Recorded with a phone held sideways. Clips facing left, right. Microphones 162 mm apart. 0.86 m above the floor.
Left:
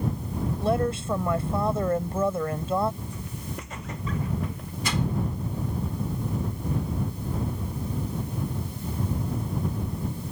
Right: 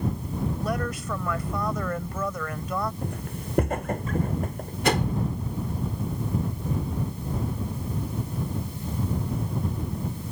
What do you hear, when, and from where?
0.6 s a woman speaking: 30° left (ahead or behind)
3.0 s footsteps: 60° right (ahead or behind); by 4.7 s 45° right (ahead or behind)
4.8 s a whoosh: 65° right (ahead or behind)